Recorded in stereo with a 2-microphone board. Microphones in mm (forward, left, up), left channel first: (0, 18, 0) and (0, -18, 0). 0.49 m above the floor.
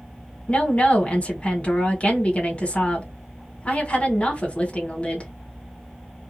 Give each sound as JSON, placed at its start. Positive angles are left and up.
{"t": 0.5, "sound": "a woman speaking", "side_deg": 40, "distance_m": 1.3}